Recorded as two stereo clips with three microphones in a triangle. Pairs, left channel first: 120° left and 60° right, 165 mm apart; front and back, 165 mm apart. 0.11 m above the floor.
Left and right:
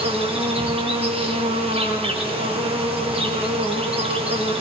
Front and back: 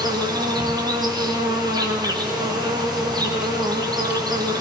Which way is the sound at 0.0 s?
115° right.